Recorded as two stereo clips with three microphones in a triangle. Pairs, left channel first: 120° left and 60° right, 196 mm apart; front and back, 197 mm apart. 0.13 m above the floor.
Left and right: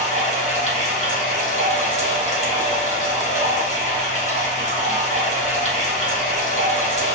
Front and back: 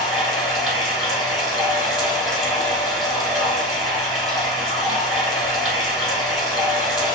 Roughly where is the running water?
Right.